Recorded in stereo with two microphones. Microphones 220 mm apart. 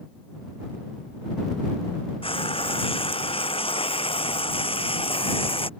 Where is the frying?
25° left (ahead or behind).